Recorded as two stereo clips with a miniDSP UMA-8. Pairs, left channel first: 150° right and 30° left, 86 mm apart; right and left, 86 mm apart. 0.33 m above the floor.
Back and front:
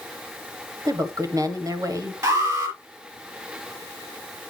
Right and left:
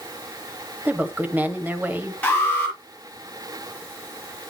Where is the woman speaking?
30° left, 1.8 m.